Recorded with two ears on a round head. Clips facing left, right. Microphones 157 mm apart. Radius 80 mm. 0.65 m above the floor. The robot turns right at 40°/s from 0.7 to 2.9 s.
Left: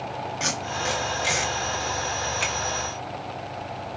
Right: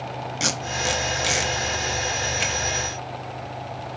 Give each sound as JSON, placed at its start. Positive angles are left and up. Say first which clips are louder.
{"t": 0.4, "sound": "tape being pulled", "louder": "right 3 dB", "side_deg": -40, "distance_m": 0.6}